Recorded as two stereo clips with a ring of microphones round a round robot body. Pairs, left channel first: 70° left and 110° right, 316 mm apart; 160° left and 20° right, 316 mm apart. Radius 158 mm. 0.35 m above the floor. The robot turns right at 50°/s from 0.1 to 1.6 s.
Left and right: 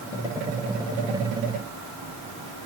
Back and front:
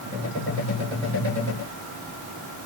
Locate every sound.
Only background noise.